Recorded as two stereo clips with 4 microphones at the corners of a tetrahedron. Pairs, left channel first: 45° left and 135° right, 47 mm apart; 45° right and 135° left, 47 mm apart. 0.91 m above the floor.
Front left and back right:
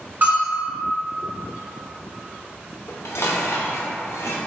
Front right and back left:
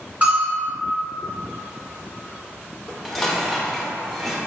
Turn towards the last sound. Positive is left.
turn(degrees=40)